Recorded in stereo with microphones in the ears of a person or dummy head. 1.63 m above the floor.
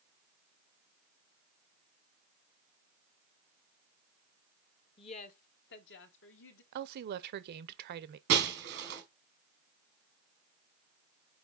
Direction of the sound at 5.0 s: 30° left (ahead or behind).